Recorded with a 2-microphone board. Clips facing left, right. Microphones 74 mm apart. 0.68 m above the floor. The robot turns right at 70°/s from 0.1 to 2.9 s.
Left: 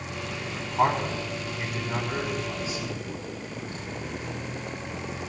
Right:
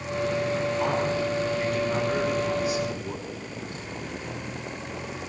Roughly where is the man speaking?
Left.